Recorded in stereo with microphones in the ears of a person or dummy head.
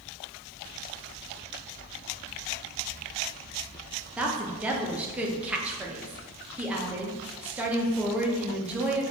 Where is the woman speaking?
10° right (ahead or behind), 0.6 m.